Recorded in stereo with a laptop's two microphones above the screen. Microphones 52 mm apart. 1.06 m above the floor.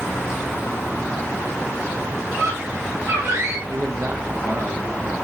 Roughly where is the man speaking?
Right.